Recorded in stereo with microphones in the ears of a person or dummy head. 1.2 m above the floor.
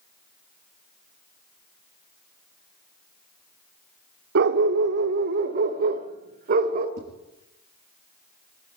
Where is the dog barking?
55° right (ahead or behind), 1.2 m; by 6.9 s 40° right (ahead or behind), 2.5 m.